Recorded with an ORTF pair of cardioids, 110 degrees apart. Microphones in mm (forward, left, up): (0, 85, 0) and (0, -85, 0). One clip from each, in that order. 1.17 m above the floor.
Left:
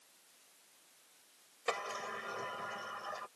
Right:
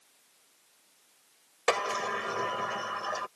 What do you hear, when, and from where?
1.7 s a sliding door: 55° right